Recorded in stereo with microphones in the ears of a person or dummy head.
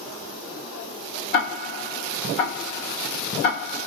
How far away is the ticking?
About 0.9 m.